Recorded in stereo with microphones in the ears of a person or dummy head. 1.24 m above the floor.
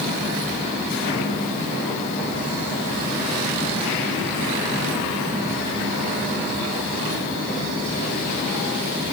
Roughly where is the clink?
No clink in this recording.